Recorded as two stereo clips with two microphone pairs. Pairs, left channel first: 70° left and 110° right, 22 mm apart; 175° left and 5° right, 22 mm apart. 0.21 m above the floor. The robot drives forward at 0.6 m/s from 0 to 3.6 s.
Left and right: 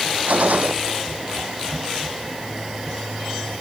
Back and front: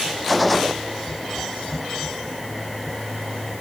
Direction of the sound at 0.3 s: 95° right.